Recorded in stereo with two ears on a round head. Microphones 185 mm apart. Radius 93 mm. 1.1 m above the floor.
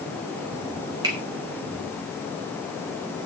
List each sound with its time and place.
1.0 s a finger snap: 20° right (ahead or behind), 3.5 m